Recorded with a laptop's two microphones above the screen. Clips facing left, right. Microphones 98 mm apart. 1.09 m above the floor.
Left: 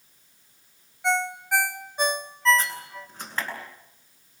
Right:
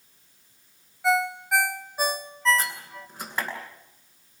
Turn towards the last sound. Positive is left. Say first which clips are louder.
# left 1 dB
turn(degrees=-5)  # may be behind; listen again after turning